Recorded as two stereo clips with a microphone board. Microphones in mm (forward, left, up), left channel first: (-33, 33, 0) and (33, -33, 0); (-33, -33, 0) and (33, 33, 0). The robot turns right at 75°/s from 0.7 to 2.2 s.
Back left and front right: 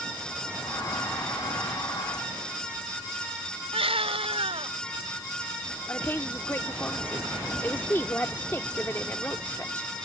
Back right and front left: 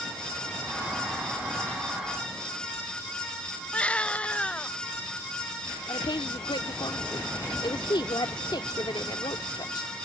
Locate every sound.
3.7 s a baby crying: 55° right
5.9 s a woman speaking: 160° right